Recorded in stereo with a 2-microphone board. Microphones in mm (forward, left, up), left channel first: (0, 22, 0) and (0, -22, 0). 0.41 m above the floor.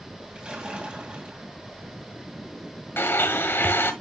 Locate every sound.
0.3 s a splash: 25° right (ahead or behind), 2.5 m
3.0 s a blender: 65° left (ahead or behind), 1.5 m